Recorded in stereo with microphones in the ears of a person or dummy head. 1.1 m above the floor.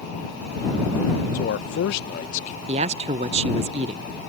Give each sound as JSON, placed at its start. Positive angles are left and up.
{"t": 1.3, "sound": "a man speaking", "side_deg": 45}
{"t": 2.7, "sound": "a man speaking", "side_deg": -30}